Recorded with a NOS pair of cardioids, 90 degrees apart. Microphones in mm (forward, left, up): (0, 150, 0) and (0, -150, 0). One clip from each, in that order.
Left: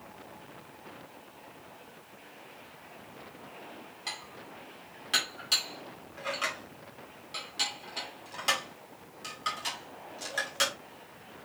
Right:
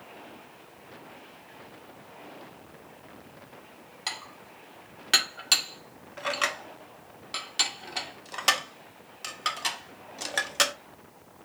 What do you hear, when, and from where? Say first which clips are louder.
4.1 s dishes clattering: right 4 dB; 55° right, 2 m